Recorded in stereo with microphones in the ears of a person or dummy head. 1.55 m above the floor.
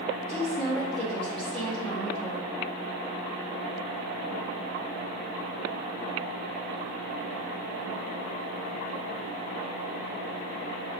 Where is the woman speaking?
5° left (ahead or behind), 0.7 m.